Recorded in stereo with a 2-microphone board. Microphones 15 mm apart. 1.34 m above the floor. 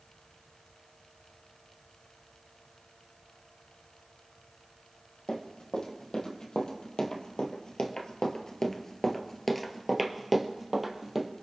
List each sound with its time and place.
5.3 s running footsteps: 65° left (ahead or behind), 3.5 m; by 11.3 s 30° right (ahead or behind), 2.5 m